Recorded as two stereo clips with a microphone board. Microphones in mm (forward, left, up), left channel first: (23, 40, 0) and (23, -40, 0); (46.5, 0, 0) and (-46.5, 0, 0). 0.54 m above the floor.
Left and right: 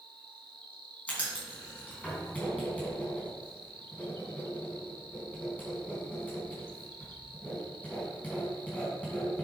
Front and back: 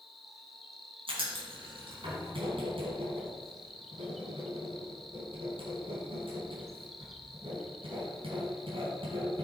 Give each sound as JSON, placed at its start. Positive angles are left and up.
{"t": 0.0, "sound": "an insect", "azimuth_deg": -90, "distance_m": 0.9}
{"t": 1.1, "sound": "writing", "azimuth_deg": 165, "distance_m": 4.0}